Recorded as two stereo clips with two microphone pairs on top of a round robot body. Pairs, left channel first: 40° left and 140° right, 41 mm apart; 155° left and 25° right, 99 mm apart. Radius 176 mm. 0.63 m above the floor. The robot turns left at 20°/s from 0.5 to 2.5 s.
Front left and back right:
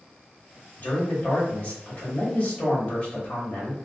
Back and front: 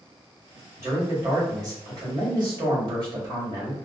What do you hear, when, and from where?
0.8 s a man speaking: 20° left, 1.6 m; by 3.8 s 15° right, 1.6 m